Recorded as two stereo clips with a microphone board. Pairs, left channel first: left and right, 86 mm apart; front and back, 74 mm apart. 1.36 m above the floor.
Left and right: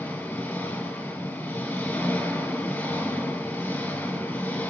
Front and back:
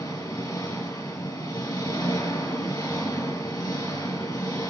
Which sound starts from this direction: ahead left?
An engine running, at 0.0 s.